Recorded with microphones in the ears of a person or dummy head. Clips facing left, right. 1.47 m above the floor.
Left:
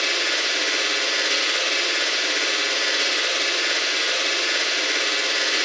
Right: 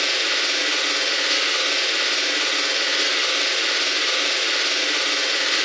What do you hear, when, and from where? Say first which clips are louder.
0.0 s a machine running: even; 30° right (ahead or behind), 0.9 m